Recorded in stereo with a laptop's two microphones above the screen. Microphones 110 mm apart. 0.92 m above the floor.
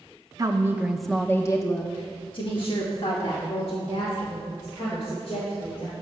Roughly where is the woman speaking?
Right.